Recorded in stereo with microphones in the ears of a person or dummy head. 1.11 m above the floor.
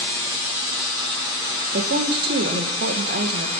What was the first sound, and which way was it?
A woman speaking, 45° right (ahead or behind).